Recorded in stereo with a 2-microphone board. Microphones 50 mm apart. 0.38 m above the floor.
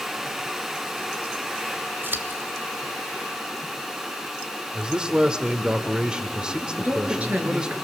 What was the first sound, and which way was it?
Scissors, 45° right (ahead or behind).